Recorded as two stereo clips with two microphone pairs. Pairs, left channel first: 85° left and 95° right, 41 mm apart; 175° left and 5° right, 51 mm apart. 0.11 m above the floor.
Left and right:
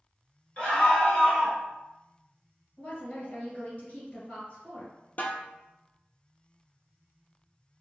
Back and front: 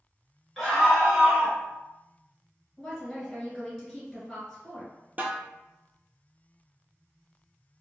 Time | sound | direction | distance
0.6 | a scream | 80° left | 1.4 m
2.8 | a woman speaking | 90° left | 1.4 m
5.2 | a snare drum | 45° left | 0.6 m